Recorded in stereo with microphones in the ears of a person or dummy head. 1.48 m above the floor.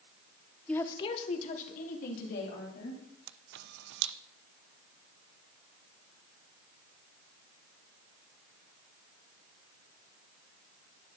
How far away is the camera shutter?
About 0.6 m.